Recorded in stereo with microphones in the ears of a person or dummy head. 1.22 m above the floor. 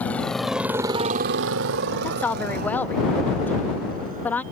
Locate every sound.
0.0 s a motorcycle: centre (ahead or behind); by 4.5 s 35° right (ahead or behind)
2.0 s a woman speaking: 20° left (ahead or behind)